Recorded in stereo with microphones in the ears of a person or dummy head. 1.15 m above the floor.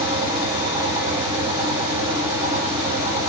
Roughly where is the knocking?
I don't hear knocking.